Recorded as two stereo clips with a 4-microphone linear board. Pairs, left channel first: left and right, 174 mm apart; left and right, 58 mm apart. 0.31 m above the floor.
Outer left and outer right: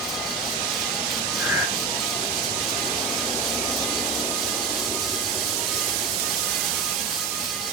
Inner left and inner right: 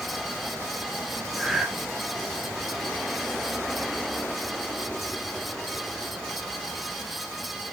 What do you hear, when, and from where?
1.4 s breathing: 15° right (ahead or behind), 2.5 m